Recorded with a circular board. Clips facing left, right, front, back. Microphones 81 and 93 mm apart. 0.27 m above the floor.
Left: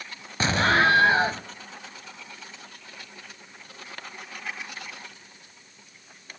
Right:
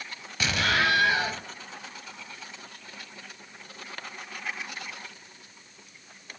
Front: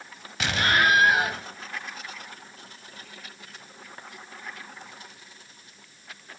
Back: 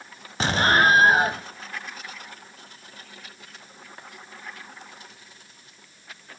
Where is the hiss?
I don't hear a hiss.